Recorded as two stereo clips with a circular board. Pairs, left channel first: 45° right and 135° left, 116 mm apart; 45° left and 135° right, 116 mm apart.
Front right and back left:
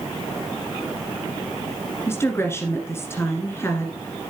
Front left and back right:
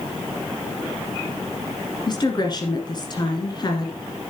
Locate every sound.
2.1 s a woman speaking: 15° left, 1.4 m